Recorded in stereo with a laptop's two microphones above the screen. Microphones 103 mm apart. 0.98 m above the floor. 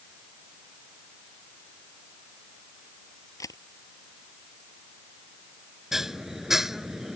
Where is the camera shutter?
35° left (ahead or behind).